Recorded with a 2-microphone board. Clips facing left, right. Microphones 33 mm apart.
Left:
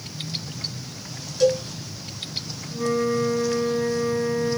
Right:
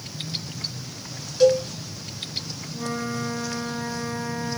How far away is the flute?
About 1.7 m.